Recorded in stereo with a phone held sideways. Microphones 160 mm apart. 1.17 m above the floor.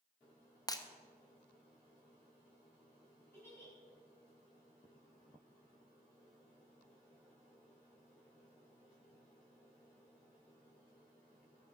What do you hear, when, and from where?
0.7 s breaking glass: 25° left (ahead or behind), 0.8 m
3.3 s a giggle: 15° left (ahead or behind), 4.5 m